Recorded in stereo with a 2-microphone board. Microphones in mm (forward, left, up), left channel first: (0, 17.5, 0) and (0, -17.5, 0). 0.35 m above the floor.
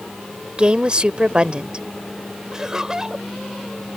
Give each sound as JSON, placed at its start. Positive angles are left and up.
{"t": 0.6, "sound": "a woman speaking", "side_deg": -30}
{"t": 2.5, "sound": "laughter", "side_deg": -20}